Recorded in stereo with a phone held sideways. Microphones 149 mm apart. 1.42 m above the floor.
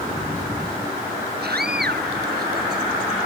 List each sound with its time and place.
1.4 s a scream: 85° right